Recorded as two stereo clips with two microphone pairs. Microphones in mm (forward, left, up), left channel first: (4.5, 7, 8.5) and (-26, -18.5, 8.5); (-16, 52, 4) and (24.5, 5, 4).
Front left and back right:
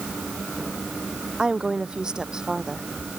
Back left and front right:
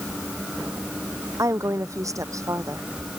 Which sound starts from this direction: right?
A woman speaking, at 1.4 s.